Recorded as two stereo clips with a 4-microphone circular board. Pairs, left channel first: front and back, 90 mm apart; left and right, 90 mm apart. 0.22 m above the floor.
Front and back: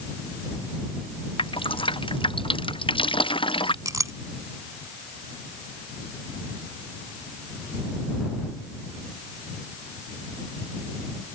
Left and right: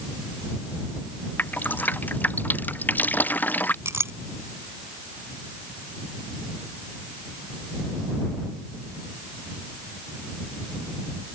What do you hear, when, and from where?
1.4 s dripping: 20° left
3.9 s a clink: 140° right